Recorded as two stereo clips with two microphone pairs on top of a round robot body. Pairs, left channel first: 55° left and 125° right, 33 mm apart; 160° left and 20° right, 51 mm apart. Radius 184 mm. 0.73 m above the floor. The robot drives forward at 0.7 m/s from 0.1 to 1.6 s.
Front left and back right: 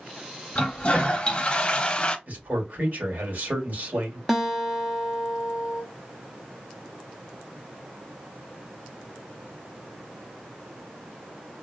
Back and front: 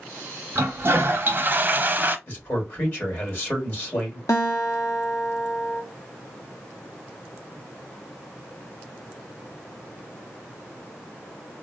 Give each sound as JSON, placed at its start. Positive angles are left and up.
{"t": 0.6, "sound": "a toilet flushing", "azimuth_deg": 0, "distance_m": 1.4}
{"t": 2.3, "sound": "a man speaking", "azimuth_deg": -150, "distance_m": 2.5}
{"t": 4.3, "sound": "a guitar", "azimuth_deg": 145, "distance_m": 0.8}